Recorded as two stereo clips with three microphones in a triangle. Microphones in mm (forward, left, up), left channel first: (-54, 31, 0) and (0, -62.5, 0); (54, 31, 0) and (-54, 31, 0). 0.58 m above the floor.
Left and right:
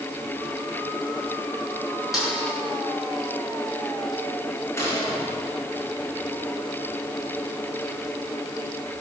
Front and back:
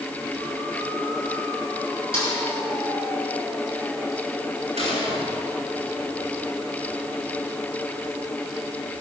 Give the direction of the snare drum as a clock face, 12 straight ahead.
5 o'clock.